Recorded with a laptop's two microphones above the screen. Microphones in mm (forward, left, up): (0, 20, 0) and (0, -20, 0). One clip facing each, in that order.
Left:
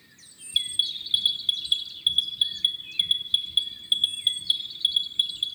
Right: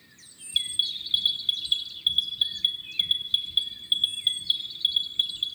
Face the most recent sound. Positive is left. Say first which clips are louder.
# left 1 dB
turn(degrees=10)  # may be behind; listen again after turning